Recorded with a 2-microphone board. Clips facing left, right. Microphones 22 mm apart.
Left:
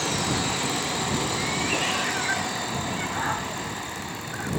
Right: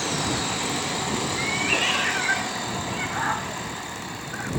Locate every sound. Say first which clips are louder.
1.4 s a cat meowing: right 2 dB; 30° right (ahead or behind); by 4.5 s 10° right (ahead or behind)